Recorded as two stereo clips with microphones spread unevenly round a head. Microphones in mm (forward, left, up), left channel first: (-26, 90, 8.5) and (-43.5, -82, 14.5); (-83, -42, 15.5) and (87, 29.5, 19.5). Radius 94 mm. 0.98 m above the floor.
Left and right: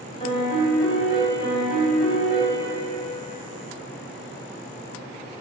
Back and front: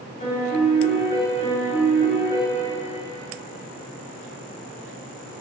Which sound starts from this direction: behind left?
A piano, at 0.2 s.